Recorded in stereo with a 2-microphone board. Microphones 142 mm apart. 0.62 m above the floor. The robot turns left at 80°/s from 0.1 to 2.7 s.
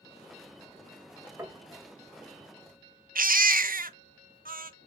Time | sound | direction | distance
1.4 | knocking | 20° right (ahead or behind) | 2.5 m
3.1 | a baby crying | 75° right (ahead or behind) | 0.6 m